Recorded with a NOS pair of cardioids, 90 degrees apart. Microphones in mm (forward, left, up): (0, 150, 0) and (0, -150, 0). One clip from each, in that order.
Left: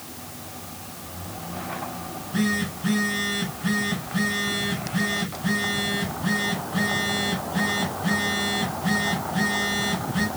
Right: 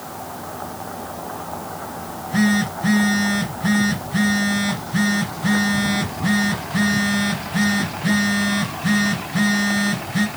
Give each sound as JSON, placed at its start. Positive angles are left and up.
{"t": 2.0, "sound": "a phone buzzing", "azimuth_deg": -45, "distance_m": 6.5}